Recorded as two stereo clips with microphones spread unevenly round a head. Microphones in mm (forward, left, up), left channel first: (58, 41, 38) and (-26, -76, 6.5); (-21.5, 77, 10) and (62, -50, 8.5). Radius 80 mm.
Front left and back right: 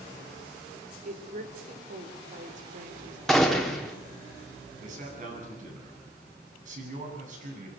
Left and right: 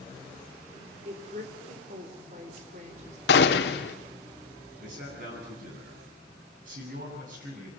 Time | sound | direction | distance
1.1 | a woman speaking | 105° right | 4 m
3.3 | a gunshot | 145° left | 1.8 m
4.8 | a man speaking | 95° right | 9 m